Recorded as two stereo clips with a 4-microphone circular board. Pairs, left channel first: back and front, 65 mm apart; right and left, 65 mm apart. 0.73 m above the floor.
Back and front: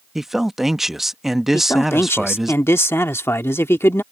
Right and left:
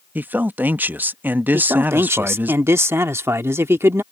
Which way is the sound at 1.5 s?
135° left.